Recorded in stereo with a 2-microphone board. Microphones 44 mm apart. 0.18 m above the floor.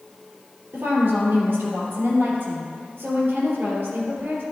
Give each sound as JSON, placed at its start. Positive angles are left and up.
{"t": 0.7, "sound": "a woman speaking", "side_deg": -55, "distance_m": 3.0}